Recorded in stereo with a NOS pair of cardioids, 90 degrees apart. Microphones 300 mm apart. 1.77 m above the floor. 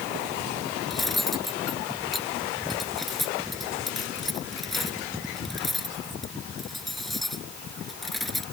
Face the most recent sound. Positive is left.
turn(degrees=0)